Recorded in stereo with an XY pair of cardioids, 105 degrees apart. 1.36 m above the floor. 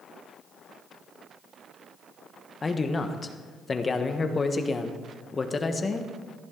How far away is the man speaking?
About 1.2 m.